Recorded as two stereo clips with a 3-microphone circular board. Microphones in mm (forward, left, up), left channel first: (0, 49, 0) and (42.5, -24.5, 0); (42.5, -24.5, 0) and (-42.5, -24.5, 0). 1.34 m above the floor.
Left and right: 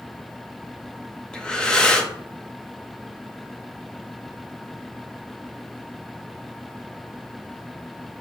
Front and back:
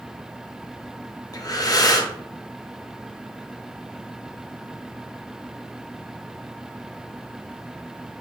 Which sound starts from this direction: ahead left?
Breathing, at 1.3 s.